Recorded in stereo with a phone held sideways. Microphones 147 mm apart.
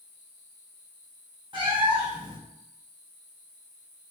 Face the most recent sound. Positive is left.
turn(degrees=-35)  # may be behind; listen again after turning